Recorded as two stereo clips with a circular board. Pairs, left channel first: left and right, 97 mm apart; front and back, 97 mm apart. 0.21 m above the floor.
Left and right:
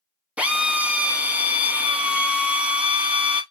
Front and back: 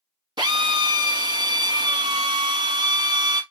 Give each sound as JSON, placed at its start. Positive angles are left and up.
{"t": 0.4, "sound": "a drill", "azimuth_deg": -165, "distance_m": 0.6}